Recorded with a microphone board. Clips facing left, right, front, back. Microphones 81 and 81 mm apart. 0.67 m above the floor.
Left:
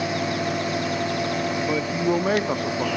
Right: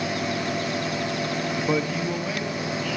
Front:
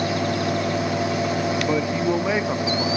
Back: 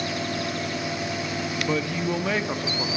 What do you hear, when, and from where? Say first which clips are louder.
1.7 s a man speaking: left 2 dB, front 2 dB; 50° right, 0.8 m; by 3.0 s 80° left, 2.0 m